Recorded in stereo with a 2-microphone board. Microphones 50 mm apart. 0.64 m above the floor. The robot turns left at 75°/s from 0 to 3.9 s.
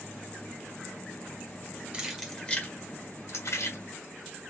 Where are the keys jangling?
20° right (ahead or behind), 1.6 m; by 3.8 s 60° left (ahead or behind), 1.6 m.